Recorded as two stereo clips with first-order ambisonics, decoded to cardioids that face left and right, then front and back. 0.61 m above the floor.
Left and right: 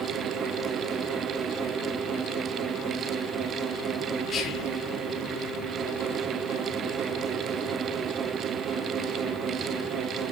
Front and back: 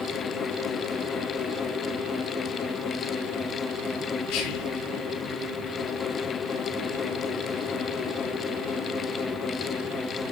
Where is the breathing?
No breathing in this recording.